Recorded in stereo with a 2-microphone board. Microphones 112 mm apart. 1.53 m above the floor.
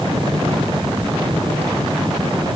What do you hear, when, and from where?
Only background noise.